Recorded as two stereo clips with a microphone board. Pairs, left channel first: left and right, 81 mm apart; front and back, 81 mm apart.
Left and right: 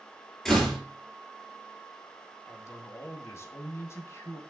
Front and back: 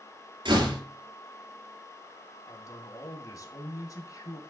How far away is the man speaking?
About 2.5 m.